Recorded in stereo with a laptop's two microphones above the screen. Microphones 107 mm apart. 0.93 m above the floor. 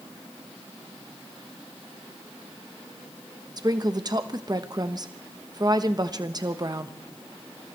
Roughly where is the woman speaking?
Right.